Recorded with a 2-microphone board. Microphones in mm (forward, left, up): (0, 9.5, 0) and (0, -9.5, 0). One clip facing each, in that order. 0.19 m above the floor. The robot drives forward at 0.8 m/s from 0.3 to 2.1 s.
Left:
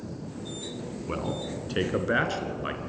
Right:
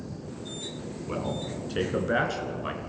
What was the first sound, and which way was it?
A man speaking, 15° left (ahead or behind).